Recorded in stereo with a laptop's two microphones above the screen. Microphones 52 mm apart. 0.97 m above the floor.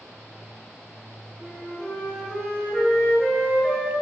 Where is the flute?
20° left (ahead or behind), 6 m.